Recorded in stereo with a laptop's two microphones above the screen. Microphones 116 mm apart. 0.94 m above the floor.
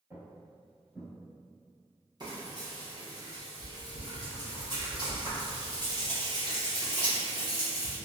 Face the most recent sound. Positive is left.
turn(degrees=-40)  # may be behind; listen again after turning